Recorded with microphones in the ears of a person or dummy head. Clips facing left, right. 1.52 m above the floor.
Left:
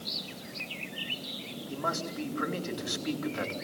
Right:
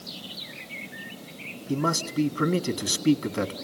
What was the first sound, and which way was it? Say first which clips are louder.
A man speaking: right 9 dB; 45° right (ahead or behind).